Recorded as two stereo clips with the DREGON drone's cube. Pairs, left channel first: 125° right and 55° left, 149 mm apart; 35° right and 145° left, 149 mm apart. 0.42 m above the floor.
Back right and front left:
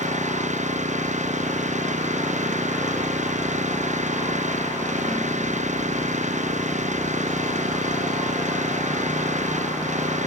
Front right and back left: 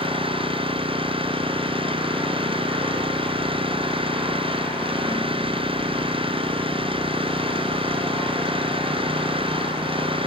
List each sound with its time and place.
0.0 s an engine running: 90° left